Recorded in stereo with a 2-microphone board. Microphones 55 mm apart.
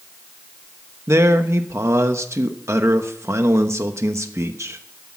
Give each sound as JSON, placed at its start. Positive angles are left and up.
{"t": 1.1, "sound": "a man speaking", "side_deg": -55, "distance_m": 1.0}